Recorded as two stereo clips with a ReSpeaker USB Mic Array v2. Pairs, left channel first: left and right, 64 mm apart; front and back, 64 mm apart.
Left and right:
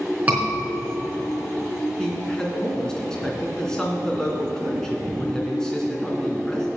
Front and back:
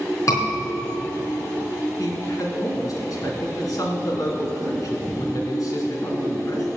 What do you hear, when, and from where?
0.3 s a scream: 25° right, 4 m
2.0 s a man speaking: 10° left, 3 m